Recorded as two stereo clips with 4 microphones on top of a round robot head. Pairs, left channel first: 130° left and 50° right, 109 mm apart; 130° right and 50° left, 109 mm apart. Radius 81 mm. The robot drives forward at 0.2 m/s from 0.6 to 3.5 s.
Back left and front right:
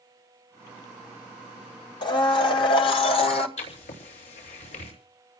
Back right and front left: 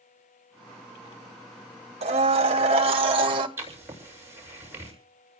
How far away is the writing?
About 7.5 m.